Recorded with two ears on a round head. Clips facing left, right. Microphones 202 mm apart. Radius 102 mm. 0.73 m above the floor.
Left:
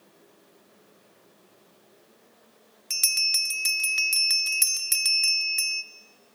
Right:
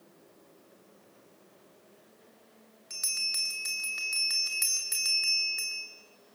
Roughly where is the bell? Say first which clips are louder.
Left 3 dB; left.